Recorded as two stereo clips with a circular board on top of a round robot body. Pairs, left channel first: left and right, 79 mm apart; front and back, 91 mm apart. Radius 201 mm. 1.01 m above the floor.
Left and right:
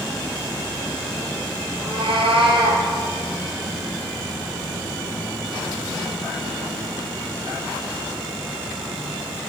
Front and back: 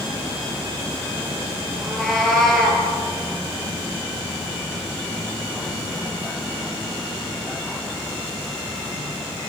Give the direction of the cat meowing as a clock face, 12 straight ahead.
3 o'clock.